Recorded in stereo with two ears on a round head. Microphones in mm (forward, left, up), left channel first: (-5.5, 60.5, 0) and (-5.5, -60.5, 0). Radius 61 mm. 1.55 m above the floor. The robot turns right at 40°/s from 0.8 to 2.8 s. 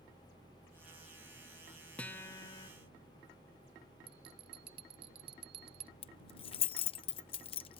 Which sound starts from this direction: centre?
A guitar, at 2.0 s.